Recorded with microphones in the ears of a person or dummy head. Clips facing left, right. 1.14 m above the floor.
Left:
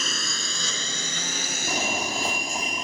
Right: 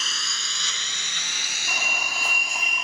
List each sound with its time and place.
0.0 s a lawn mower: 45° left (ahead or behind); by 2.9 s 35° left (ahead or behind)
1.7 s a fire alarm: 30° left (ahead or behind)